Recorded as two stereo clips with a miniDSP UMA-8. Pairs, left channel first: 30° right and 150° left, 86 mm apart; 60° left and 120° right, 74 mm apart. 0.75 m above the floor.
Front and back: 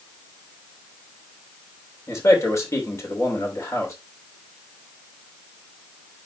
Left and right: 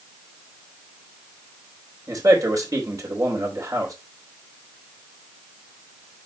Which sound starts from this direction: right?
A man speaking, at 2.1 s.